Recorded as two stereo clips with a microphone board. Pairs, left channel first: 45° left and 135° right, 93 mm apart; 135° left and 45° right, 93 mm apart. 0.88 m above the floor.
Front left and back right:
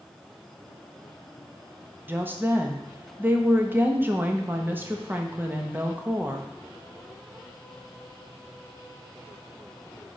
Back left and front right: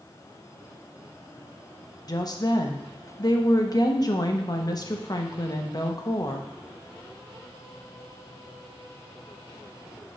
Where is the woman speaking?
165° left, 0.9 m.